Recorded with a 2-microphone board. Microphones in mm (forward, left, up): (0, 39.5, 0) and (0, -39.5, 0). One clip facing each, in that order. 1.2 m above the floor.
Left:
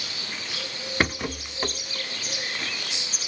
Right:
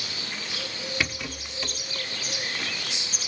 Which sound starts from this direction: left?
A rattle, at 1.0 s.